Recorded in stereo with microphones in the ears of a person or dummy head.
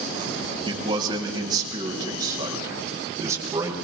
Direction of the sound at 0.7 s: 30° right (ahead or behind).